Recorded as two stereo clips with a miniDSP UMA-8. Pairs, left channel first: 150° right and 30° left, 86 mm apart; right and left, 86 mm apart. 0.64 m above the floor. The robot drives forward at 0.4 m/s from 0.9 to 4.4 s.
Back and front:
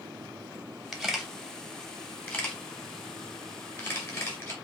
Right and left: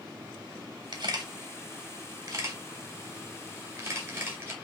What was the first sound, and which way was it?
A camera shutter, 120° left.